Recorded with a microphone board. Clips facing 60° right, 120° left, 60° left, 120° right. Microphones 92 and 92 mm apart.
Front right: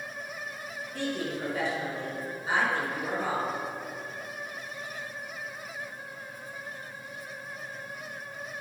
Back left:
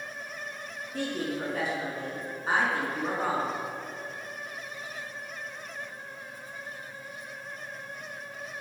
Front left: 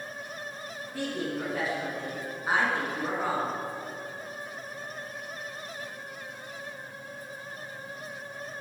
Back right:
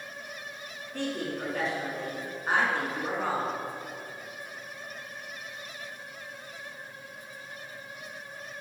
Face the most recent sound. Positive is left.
turn(degrees=140)